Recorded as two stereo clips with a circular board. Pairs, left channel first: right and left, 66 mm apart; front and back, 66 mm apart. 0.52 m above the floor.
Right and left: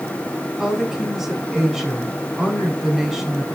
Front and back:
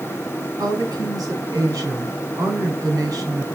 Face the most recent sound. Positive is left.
turn(degrees=175)